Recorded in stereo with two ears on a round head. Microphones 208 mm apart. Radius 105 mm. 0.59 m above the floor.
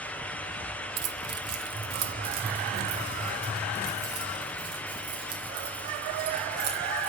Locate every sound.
1.0 s keys jangling: 45° right (ahead or behind), 1.3 m; by 7.1 s 65° right (ahead or behind), 6 m